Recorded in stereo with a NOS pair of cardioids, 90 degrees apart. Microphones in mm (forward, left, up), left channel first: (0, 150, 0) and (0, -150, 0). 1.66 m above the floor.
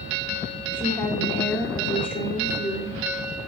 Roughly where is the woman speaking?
Ahead.